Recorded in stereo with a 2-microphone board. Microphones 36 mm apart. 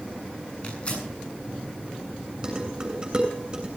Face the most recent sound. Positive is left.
turn(degrees=-20)  # may be behind; listen again after turning